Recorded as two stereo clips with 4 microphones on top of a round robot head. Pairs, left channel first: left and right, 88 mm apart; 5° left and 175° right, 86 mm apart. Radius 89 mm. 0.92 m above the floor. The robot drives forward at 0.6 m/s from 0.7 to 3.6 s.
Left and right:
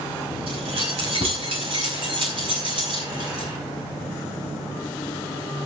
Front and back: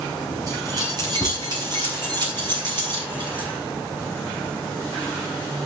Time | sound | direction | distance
0.5 | keys jangling | 115° right | 4.5 m